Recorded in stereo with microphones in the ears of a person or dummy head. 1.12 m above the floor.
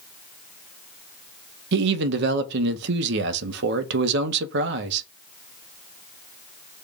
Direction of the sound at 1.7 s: 65° right (ahead or behind).